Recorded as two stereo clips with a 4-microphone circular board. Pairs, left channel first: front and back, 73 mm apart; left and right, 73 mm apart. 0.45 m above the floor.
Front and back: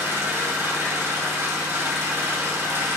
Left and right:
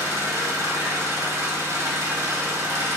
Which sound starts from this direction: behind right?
An engine running, at 0.0 s.